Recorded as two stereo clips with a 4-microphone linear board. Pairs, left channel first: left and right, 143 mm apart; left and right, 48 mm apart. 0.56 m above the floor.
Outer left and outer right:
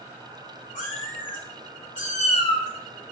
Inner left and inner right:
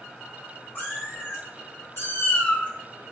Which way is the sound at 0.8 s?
70° left (ahead or behind).